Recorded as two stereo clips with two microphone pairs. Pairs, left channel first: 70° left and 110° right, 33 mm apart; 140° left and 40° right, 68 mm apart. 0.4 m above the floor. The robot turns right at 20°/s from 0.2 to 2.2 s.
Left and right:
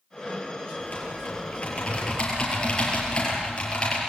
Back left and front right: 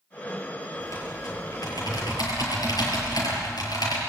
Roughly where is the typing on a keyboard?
Left.